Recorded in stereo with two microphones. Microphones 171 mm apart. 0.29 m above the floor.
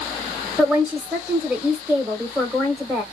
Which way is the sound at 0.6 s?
5° right (ahead or behind).